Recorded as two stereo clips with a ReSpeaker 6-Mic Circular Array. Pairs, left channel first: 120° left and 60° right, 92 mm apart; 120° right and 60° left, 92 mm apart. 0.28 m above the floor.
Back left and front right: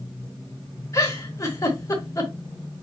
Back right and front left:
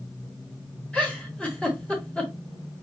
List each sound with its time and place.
0.9 s a giggle: 165° left, 2 m